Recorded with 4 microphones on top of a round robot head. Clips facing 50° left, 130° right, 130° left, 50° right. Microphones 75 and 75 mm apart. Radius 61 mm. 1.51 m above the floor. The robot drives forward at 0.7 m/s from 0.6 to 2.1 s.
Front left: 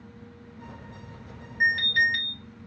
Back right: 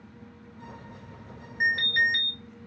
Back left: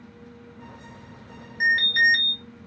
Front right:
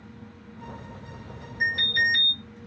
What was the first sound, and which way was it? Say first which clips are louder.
An alarm: front left 1 dB, back left 5 dB; 170° left.